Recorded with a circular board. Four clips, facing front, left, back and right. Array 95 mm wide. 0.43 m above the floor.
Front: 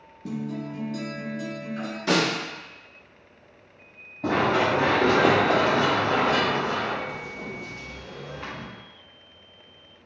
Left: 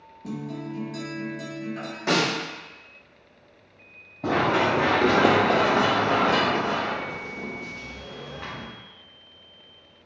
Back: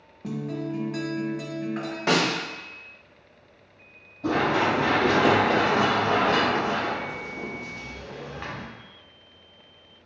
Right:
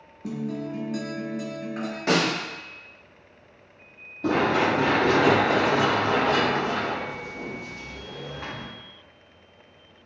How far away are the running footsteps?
About 1.7 m.